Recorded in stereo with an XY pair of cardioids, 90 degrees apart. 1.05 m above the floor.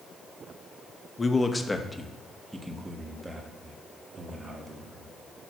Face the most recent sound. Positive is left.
turn(degrees=-40)